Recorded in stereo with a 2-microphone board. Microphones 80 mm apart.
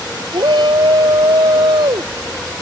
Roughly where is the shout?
Right.